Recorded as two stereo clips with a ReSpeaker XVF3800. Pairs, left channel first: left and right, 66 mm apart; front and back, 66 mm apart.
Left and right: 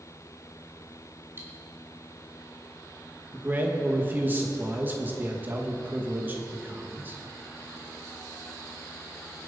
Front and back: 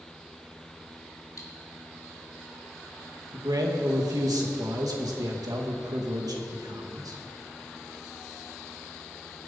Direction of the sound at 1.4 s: 35° right.